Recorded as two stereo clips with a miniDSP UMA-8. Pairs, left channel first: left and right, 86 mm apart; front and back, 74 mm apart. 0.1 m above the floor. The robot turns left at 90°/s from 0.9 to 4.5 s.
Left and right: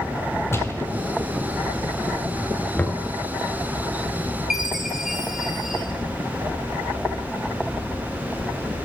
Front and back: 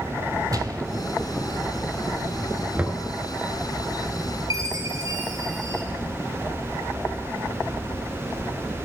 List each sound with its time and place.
0.5 s a gunshot: 150° left, 1.0 m
2.8 s knocking: 145° left, 1.2 m; by 3.0 s 120° left, 1.2 m
4.5 s a chime: 175° right, 2.5 m